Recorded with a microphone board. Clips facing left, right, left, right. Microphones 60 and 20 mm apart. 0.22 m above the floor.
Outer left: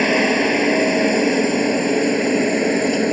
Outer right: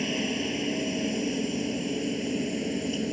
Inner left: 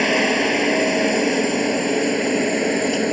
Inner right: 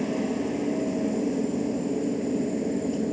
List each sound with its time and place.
0.0 s a helicopter: 60° left (ahead or behind)